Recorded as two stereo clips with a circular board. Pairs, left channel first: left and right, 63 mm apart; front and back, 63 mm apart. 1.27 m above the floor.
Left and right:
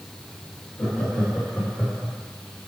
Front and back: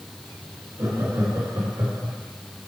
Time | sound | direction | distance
0.8 | laughter | 160° left | 2 m